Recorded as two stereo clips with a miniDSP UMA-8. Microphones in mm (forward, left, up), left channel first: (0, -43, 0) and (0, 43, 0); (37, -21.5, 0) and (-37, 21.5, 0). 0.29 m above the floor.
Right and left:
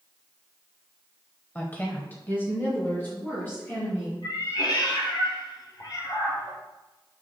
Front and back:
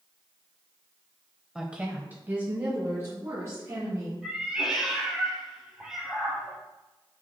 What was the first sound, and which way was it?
A woman speaking, 135° right.